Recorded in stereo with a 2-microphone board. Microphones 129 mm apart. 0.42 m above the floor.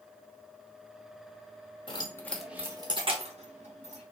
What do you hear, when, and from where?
1.9 s keys jangling: 40° left (ahead or behind), 1.0 m; by 4.0 s 65° right (ahead or behind), 1.9 m